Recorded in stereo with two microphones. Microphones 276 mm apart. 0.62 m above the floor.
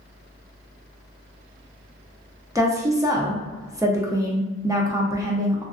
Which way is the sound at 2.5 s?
10° right (ahead or behind).